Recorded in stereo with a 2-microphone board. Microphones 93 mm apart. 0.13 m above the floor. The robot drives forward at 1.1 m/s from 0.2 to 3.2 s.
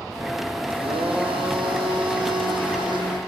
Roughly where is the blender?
Right.